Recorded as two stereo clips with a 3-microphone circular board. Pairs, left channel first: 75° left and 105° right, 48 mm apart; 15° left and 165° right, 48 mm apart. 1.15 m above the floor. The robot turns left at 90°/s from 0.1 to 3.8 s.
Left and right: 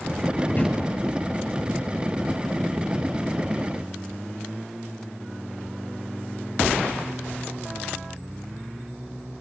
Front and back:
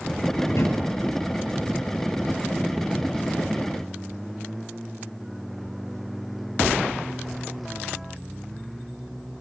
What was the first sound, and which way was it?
A drawer, 30° left.